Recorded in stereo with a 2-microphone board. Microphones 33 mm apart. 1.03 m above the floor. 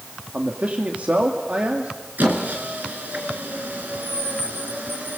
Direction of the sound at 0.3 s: 50° right (ahead or behind).